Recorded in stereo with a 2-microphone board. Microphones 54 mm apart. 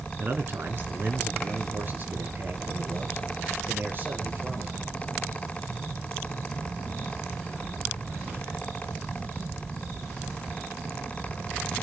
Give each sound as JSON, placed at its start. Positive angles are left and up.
{"t": 0.2, "sound": "a man speaking", "side_deg": -40, "distance_m": 2.5}